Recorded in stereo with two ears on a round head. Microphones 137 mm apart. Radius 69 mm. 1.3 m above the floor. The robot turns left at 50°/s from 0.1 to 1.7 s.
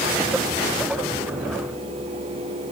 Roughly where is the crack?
I don't hear a crack.